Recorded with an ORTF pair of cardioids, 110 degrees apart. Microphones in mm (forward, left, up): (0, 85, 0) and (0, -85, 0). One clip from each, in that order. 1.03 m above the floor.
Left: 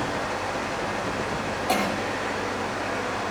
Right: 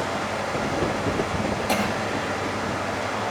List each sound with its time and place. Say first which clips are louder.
0.0 s a fan: right 1 dB; 60° right, 5.5 m
1.7 s a cough: left 1 dB; 10° right, 1.5 m